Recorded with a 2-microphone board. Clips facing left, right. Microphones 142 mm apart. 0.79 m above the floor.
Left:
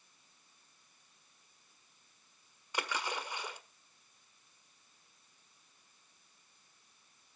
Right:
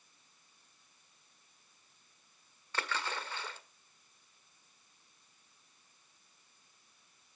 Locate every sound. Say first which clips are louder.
2.7 s a splash: left 1 dB; 15° left (ahead or behind), 1.4 m